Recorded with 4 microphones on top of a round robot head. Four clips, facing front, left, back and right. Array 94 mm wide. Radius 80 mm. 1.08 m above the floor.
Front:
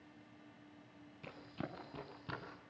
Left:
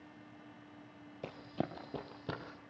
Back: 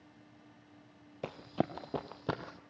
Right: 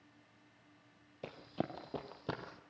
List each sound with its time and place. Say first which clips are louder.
1.2 s running footsteps: left 1 dB, back 12 dB; 175° left, 1.8 m; by 2.6 s 170° right, 2.5 m